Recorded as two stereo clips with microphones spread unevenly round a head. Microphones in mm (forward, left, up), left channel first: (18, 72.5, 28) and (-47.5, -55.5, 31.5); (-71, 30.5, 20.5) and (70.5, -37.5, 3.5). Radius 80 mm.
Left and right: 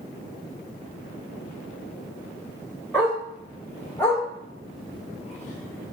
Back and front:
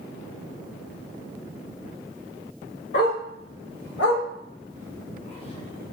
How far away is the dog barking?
About 1.9 m.